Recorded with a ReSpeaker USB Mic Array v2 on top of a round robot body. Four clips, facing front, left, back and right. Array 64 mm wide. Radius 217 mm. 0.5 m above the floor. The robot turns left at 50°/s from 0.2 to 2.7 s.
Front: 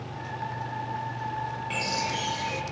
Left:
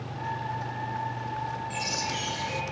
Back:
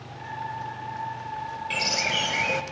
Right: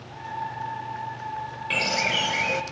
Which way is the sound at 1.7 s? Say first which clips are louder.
Right 6 dB, back 3 dB; 100° right.